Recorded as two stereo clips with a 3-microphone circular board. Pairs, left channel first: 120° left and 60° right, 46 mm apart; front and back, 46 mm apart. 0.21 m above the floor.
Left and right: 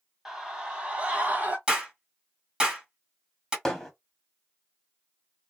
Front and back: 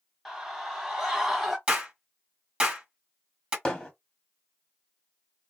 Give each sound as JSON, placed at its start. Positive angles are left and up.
{"t": 0.2, "sound": "a scream", "azimuth_deg": -115, "distance_m": 1.0}
{"t": 1.7, "sound": "a clap", "azimuth_deg": -120, "distance_m": 1.7}
{"t": 3.6, "sound": "hammering", "azimuth_deg": 50, "distance_m": 1.1}